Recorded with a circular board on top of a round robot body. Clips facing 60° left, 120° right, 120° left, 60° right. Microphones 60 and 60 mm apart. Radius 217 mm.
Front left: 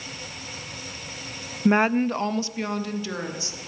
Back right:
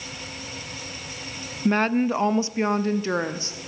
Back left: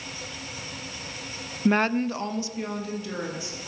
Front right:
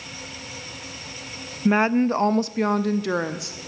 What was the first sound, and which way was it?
A woman speaking, 25° left.